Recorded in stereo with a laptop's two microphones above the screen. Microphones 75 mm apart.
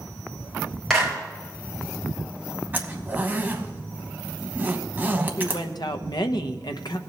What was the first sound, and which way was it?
A clap, 5° left (ahead or behind).